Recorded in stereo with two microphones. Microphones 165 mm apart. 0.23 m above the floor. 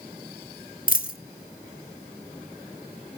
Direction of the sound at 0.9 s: 60° left (ahead or behind).